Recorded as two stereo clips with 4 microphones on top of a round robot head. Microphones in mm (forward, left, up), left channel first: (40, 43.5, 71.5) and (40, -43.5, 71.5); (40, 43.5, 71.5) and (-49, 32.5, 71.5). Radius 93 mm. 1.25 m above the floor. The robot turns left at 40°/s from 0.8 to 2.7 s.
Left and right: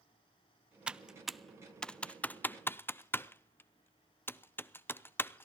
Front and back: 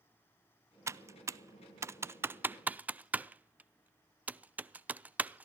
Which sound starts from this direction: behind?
Typing on a keyboard, at 0.9 s.